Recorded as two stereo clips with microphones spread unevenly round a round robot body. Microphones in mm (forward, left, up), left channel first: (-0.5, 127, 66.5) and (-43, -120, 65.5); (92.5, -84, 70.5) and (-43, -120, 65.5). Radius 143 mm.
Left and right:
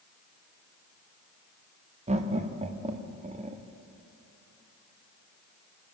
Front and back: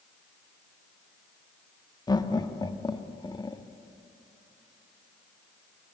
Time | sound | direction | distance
2.1 | laughter | 40° right | 1.2 m